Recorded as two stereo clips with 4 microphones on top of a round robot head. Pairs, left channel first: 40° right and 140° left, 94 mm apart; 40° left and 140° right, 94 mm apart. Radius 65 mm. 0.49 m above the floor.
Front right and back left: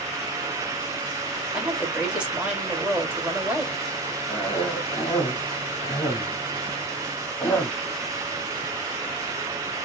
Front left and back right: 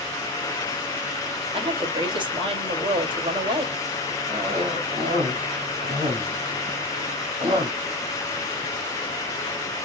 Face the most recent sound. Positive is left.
turn(degrees=-110)